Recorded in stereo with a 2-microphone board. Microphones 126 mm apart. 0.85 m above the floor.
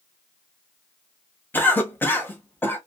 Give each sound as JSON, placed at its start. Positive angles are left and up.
{"t": 1.5, "sound": "a cough", "side_deg": 15, "distance_m": 1.0}